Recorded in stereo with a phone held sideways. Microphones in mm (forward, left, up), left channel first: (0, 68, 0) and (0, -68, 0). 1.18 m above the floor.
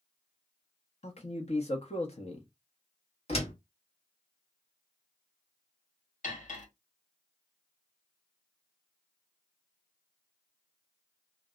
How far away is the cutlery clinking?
About 1.2 m.